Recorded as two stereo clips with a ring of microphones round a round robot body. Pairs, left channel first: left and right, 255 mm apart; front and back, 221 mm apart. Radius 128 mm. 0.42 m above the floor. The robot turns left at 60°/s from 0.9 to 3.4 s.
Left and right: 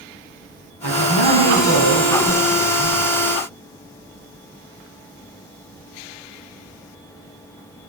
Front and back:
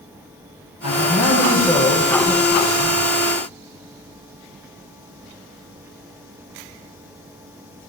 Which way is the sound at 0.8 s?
45° right.